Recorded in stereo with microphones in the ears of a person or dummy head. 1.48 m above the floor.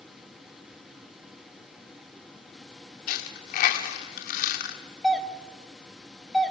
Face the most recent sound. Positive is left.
turn(degrees=0)  # may be behind; listen again after turning